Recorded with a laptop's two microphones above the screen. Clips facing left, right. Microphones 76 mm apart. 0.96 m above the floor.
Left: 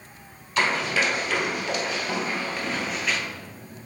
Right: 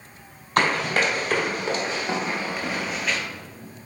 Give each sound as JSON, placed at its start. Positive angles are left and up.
{"t": 0.6, "sound": "running footsteps", "side_deg": -50, "distance_m": 1.5}